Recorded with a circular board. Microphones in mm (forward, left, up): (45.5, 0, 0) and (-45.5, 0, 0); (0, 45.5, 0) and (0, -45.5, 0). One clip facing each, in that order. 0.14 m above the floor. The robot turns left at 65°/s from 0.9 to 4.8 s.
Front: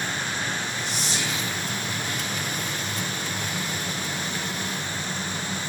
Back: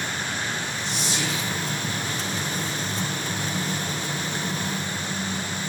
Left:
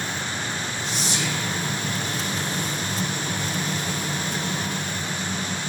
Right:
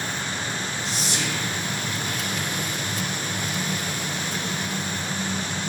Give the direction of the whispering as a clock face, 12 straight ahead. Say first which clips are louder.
Back 1 dB, left 2 dB; 1 o'clock.